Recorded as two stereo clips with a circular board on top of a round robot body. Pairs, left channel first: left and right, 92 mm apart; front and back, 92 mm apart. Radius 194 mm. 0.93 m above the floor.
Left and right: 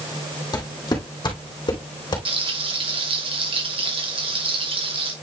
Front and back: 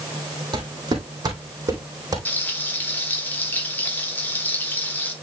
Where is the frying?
70° right, 4 m.